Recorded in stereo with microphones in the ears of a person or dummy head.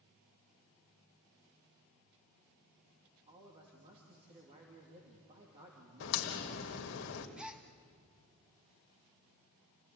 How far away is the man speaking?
About 3 m.